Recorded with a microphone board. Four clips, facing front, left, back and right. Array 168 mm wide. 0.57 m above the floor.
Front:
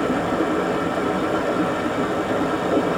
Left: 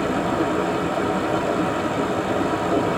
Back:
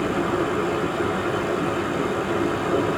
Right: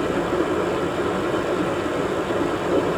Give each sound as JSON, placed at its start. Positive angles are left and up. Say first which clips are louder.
{"t": 0.0, "sound": "running water", "louder": "even, front 2 dB", "azimuth_deg": 35, "distance_m": 1.2}